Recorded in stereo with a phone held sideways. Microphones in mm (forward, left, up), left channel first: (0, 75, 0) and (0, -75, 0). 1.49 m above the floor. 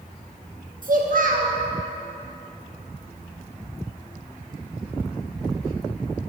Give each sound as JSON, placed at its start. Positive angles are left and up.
{"t": 0.8, "sound": "a child speaking", "side_deg": -65, "distance_m": 0.9}